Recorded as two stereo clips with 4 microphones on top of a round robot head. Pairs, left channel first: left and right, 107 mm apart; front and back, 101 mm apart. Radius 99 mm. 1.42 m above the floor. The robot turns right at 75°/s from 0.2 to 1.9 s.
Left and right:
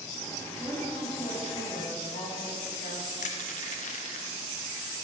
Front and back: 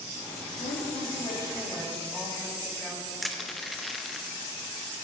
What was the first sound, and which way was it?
A woman speaking, 10° right.